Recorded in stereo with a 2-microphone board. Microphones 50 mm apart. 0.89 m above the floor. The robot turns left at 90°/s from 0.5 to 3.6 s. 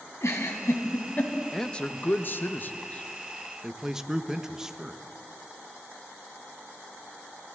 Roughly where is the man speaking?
Centre.